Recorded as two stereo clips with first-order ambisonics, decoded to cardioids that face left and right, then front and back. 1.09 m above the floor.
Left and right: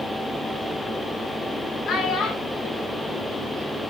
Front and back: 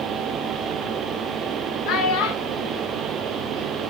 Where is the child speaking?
25° left, 1.5 m; by 3.9 s straight ahead, 3 m.